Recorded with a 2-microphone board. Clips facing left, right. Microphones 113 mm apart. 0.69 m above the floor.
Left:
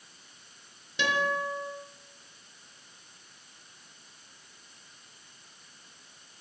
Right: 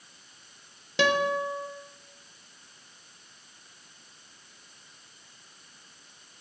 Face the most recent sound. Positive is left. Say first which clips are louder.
# right 4 dB
turn(degrees=-75)  # may be behind; listen again after turning